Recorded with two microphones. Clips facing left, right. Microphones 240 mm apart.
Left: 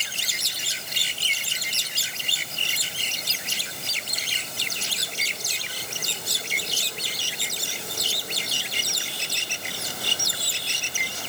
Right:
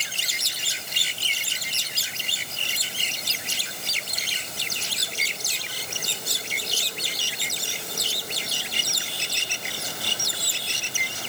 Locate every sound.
Only background noise.